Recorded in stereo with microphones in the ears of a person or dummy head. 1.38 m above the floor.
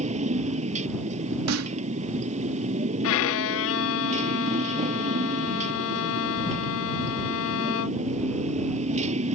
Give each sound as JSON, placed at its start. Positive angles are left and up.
{"t": 0.0, "sound": "a motorcycle", "side_deg": -35}
{"t": 1.5, "sound": "a snare drum", "side_deg": -85}
{"t": 3.0, "sound": "a violin", "side_deg": 70}